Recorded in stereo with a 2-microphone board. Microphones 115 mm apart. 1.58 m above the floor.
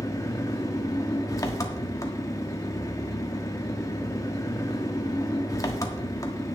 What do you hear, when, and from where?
0.0 s an engine running: 30° left (ahead or behind), 1.4 m